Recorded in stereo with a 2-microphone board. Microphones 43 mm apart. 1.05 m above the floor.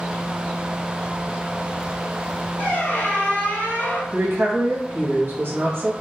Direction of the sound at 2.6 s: 45° left (ahead or behind).